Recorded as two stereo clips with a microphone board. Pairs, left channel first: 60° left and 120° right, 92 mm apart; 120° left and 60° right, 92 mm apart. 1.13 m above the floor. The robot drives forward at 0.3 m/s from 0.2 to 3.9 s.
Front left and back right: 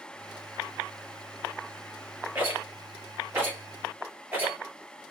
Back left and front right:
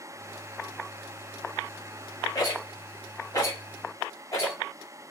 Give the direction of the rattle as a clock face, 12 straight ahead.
6 o'clock.